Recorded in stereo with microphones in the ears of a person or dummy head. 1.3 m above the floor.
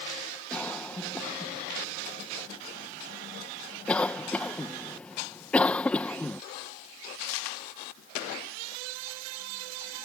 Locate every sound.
0.5 s a cough: 5° left (ahead or behind)